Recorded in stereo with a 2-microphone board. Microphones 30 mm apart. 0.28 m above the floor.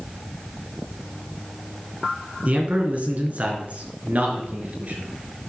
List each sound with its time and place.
2.5 s a man speaking: 55° right (ahead or behind), 3 m; by 5.1 s 60° right (ahead or behind), 4 m